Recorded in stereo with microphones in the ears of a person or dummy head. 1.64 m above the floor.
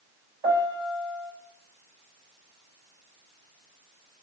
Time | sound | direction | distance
0.4 | a piano | 30° right (ahead or behind) | 3.5 m